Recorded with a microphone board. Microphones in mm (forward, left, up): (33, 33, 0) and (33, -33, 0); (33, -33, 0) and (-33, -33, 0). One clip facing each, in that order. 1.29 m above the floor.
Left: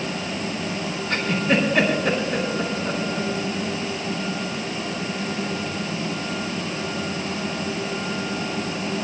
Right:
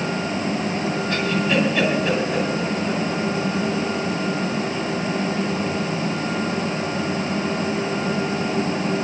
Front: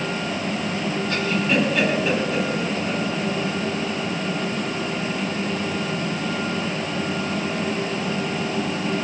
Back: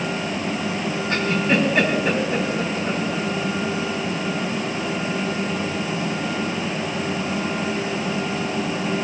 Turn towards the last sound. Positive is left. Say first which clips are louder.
# left 1 dB, back 2 dB
turn(degrees=125)